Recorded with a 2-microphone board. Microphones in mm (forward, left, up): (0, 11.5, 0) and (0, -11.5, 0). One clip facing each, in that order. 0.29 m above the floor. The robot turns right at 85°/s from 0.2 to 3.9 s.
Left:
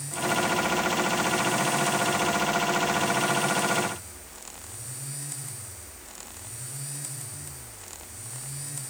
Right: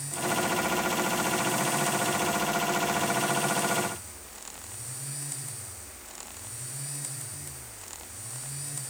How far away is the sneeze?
I don't hear a sneeze.